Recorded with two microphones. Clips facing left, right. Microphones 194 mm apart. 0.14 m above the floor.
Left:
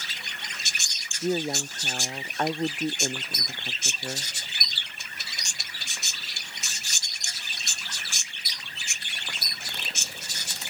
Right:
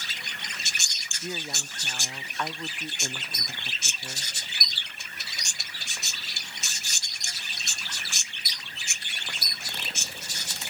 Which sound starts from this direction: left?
A woman speaking, at 1.2 s.